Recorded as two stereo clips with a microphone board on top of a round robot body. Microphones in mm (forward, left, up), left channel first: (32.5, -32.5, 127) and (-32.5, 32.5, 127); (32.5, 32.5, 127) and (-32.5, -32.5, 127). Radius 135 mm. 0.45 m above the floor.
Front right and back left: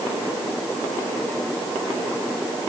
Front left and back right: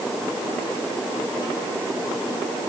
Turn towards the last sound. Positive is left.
No sound to turn to.